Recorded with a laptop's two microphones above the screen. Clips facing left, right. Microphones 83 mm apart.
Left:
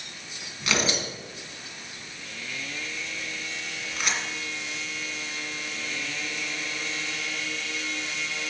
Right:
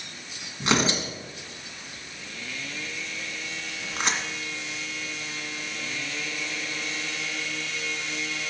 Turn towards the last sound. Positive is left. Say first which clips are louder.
# right 3 dB
turn(degrees=-30)  # may be behind; listen again after turning